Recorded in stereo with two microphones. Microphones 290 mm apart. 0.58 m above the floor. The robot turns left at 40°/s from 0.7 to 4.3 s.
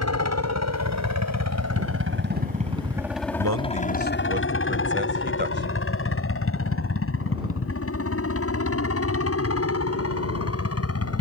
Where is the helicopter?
60° right (ahead or behind); by 11.2 s 55° left (ahead or behind).